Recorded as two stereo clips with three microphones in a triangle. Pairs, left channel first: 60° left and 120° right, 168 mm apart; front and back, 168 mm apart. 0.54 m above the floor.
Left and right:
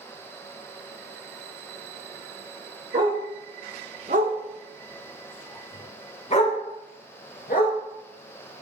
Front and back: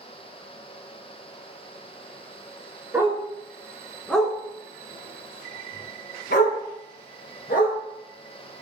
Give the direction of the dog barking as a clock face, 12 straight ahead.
3 o'clock.